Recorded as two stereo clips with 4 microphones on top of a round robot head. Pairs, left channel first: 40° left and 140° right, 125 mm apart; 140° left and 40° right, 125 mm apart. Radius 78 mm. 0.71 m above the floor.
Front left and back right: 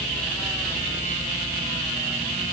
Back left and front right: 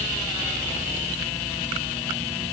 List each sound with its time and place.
Only background noise.